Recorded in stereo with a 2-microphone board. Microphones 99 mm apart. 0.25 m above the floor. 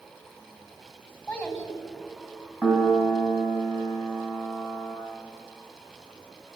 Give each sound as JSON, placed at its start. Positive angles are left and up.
{"t": 1.3, "sound": "a child speaking", "side_deg": 10, "distance_m": 1.3}
{"t": 2.6, "sound": "a piano", "side_deg": -5, "distance_m": 2.5}